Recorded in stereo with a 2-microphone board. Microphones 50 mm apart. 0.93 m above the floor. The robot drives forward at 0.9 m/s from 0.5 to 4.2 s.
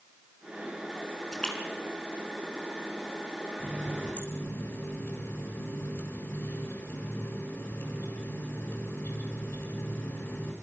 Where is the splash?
15° left (ahead or behind), 4.5 m; by 3.4 s 25° left (ahead or behind), 3 m.